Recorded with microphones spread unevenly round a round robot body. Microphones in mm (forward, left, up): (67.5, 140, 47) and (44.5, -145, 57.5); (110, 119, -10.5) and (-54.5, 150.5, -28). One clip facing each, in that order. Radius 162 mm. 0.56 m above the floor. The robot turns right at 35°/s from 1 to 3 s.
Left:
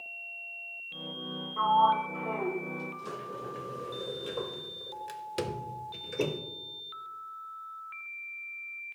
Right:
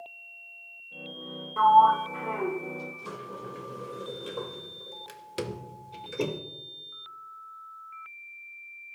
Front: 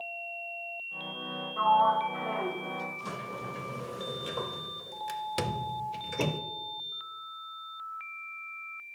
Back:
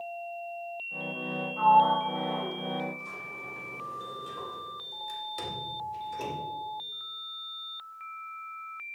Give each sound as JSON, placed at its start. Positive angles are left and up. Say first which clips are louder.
{"t": 1.6, "sound": "a sliding door", "louder": "right 6 dB, back 3 dB", "azimuth_deg": -60, "distance_m": 0.6}